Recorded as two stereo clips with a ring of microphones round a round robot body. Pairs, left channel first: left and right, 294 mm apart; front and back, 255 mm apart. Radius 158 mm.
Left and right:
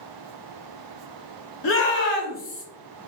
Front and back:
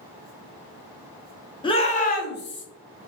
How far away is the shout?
About 0.9 m.